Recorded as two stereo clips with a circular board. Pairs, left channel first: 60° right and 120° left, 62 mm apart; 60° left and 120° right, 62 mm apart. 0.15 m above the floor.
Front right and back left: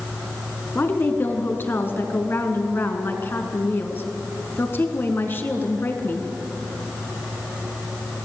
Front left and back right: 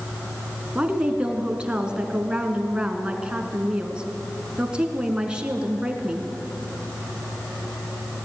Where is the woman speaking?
60° right, 1.9 m.